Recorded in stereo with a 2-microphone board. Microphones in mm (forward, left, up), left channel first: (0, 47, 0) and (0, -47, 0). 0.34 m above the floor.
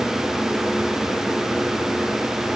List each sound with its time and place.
Only background noise.